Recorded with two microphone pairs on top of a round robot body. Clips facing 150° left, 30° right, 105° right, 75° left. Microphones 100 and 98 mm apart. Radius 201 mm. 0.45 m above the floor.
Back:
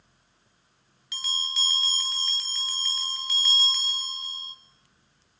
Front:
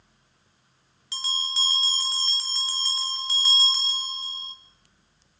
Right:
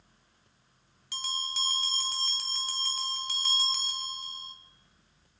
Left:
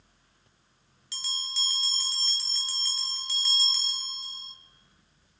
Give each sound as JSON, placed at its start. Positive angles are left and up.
{"t": 1.1, "sound": "a bell", "azimuth_deg": -90, "distance_m": 3.0}